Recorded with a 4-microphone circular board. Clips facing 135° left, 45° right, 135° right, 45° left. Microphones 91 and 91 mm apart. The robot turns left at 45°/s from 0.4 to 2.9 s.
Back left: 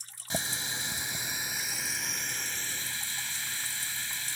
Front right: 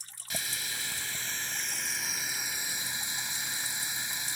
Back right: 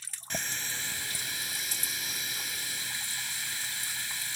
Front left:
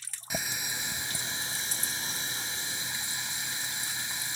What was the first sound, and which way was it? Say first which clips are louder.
A running tap: back left 4 dB, front left 1 dB; 115° left.